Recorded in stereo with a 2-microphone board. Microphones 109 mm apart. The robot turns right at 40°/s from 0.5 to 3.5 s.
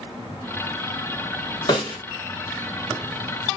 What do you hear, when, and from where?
1.7 s a snare drum: 50° left (ahead or behind), 2 m; by 2.0 s 40° left (ahead or behind), 2 m